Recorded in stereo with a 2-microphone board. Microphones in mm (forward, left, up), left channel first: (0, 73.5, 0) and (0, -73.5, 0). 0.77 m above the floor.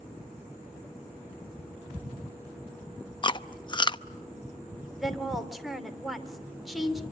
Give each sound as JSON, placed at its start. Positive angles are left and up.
{"t": 3.2, "sound": "chewing", "side_deg": 30, "distance_m": 0.6}
{"t": 5.0, "sound": "a woman speaking", "side_deg": 0, "distance_m": 2.5}